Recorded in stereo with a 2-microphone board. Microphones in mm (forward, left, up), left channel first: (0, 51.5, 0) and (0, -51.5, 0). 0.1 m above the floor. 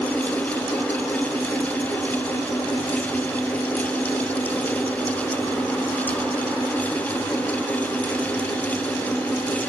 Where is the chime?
I don't hear a chime.